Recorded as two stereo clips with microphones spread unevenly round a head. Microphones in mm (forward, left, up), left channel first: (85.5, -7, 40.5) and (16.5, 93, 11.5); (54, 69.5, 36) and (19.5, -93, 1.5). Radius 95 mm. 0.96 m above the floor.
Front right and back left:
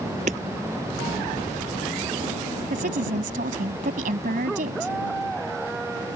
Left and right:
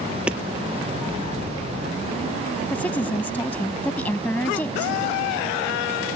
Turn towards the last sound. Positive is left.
turn(degrees=160)